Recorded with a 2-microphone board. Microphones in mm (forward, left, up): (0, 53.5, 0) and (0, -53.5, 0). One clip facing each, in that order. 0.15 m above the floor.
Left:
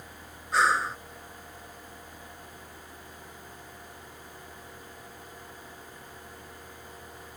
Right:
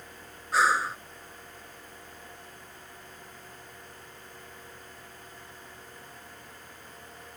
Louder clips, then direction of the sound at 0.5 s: Even; centre (ahead or behind).